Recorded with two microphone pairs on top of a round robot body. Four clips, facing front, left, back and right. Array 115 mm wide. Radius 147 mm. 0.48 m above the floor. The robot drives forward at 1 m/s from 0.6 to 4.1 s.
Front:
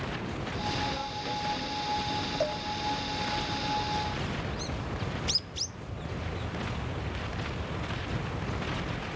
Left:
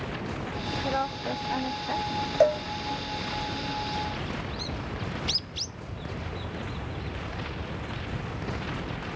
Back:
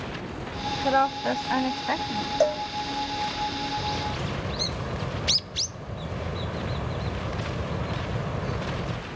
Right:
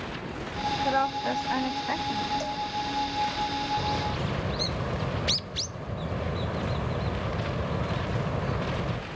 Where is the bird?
115° right; by 9.0 s 120° right.